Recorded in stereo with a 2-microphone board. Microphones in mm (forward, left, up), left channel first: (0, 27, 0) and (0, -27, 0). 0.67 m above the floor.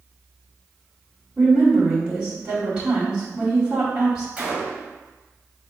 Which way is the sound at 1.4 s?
20° right (ahead or behind).